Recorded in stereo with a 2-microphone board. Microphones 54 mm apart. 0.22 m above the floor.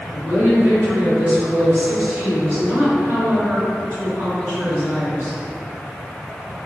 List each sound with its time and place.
0.1 s a woman speaking: 40° right (ahead or behind), 2.0 m